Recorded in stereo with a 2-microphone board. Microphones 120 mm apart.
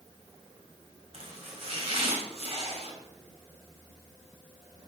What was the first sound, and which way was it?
Chopping, 55° right (ahead or behind).